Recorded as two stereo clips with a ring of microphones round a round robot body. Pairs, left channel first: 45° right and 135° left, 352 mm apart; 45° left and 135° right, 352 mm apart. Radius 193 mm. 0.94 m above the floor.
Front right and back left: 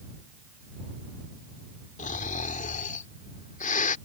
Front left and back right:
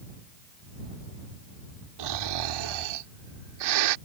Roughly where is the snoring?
Behind right.